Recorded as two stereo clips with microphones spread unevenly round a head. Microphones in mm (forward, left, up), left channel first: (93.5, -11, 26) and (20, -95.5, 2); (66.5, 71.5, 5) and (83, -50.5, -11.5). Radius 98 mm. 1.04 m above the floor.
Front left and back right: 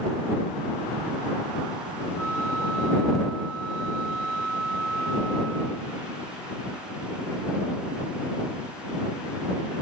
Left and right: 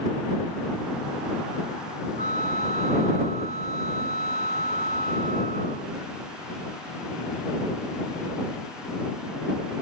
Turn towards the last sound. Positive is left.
turn(degrees=135)